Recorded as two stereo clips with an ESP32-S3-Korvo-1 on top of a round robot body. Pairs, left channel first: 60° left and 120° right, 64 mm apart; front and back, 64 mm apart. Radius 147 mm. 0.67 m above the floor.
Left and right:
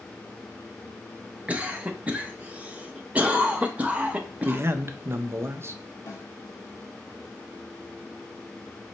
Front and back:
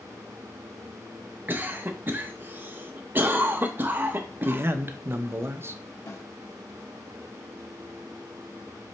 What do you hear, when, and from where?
1.5 s a cough: 170° right, 0.8 m
4.5 s a man speaking: 150° right, 0.7 m
6.1 s a snare drum: 20° left, 1.7 m